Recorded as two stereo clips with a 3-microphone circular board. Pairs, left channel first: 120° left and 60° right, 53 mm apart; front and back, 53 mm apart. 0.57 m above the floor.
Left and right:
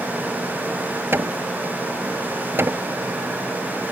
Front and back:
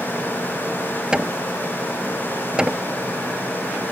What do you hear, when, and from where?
1.1 s hammering: 105° right